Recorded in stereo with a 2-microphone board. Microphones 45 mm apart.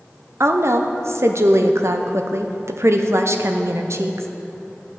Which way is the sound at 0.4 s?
65° right (ahead or behind).